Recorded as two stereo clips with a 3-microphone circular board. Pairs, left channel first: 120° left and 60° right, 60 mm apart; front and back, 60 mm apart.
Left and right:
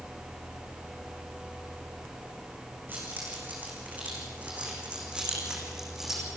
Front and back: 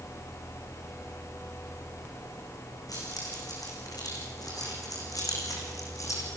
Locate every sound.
2.9 s keys jangling: straight ahead, 7 m; by 6.3 s 25° left, 5.5 m